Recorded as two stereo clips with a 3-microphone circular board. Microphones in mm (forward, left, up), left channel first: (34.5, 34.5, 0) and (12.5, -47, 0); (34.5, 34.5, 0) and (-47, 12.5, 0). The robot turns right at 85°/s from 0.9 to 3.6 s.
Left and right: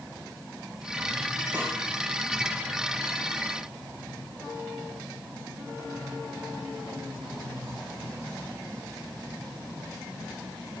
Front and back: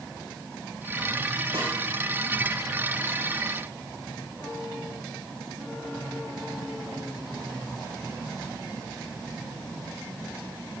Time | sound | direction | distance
1.5 | a snare drum | 170° right | 6 m